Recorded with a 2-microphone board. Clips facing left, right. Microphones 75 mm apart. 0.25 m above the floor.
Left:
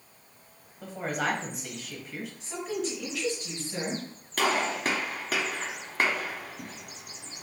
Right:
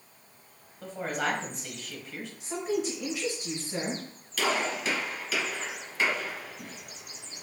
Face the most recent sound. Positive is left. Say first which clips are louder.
# left 2 dB
turn(degrees=55)  # may be behind; listen again after turning